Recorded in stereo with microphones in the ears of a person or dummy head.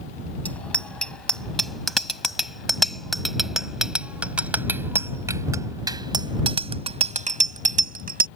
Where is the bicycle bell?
15° left (ahead or behind); by 8.3 s 45° right (ahead or behind).